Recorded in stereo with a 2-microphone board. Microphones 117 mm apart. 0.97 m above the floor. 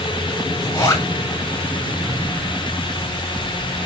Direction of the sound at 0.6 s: 35° left (ahead or behind).